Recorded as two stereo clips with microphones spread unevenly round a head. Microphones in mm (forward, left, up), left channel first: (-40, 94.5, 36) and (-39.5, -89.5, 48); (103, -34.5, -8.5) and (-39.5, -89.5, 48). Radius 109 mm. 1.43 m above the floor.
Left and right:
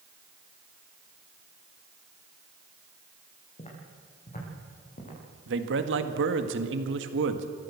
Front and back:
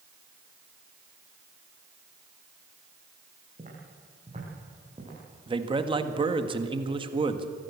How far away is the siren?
No siren in this recording.